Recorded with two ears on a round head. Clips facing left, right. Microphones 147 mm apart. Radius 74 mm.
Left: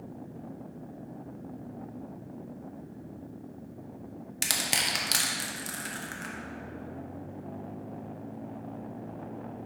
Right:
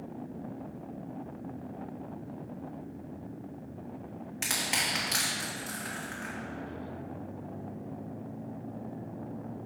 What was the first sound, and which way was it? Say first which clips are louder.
Crushing: left 1 dB; 40° left (ahead or behind).